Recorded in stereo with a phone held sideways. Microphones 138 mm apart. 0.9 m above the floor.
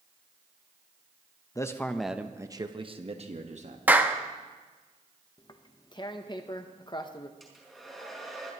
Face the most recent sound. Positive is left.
turn(degrees=0)  # may be behind; listen again after turning